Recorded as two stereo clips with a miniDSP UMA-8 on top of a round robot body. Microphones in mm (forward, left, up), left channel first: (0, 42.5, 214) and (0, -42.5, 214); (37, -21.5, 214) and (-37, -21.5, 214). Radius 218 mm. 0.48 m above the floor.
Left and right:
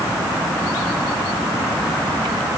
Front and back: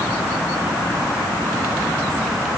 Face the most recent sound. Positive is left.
No sound to turn to.